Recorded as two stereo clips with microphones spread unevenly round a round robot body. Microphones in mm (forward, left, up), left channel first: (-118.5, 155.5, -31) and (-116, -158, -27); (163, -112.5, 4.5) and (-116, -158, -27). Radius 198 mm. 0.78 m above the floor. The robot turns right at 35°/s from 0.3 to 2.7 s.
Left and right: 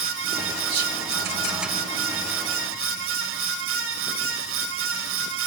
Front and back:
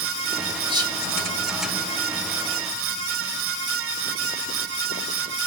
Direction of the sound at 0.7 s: 100° right.